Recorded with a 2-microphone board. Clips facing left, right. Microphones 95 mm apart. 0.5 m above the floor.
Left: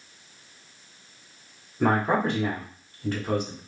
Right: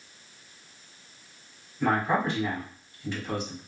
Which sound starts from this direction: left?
A man speaking, at 1.8 s.